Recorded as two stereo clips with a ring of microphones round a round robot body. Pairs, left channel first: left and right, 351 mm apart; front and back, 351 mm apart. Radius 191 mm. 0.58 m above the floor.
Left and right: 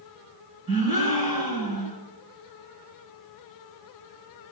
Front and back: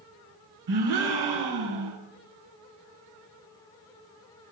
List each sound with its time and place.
0.7 s a gasp: 170° right, 6.5 m